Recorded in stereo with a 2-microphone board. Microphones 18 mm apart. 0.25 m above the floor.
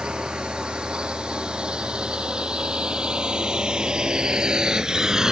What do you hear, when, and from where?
0.0 s a drone: 65° right (ahead or behind); by 5.3 s 35° right (ahead or behind)